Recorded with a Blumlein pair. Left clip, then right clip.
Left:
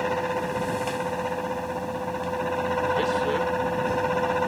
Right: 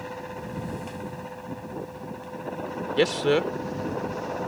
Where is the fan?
60° left.